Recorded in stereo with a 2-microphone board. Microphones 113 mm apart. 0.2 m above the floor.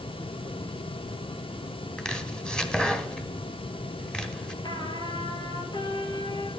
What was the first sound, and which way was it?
Chopping, 5° left (ahead or behind).